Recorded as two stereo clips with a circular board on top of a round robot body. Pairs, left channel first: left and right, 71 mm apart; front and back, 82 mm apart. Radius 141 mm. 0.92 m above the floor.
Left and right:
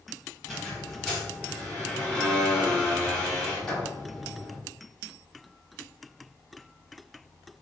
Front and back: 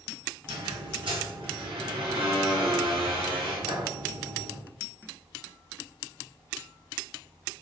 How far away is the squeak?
About 1.6 m.